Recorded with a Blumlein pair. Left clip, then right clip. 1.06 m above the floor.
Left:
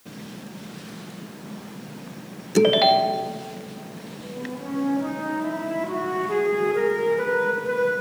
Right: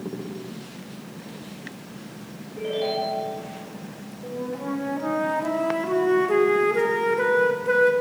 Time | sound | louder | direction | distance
2.6 | a ringtone | left 10 dB | 50° left | 0.7 m
4.2 | a flute | right 4 dB | 15° right | 1.2 m